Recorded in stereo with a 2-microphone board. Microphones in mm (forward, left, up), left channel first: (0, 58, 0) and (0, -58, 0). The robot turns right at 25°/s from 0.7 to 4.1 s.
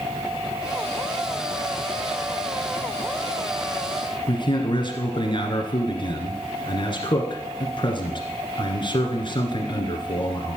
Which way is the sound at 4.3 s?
45° left (ahead or behind).